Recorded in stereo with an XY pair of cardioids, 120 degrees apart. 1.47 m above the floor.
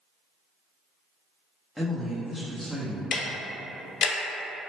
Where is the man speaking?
5° right, 0.6 m.